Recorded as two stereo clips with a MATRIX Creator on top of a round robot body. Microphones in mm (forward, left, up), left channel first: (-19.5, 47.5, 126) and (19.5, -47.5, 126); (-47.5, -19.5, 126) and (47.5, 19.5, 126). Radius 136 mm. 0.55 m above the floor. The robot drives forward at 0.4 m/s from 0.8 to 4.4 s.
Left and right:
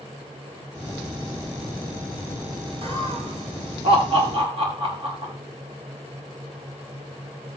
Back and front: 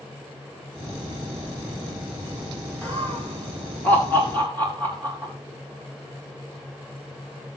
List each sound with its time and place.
2.8 s laughter: 80° right, 5 m; by 5.3 s 90° right, 5 m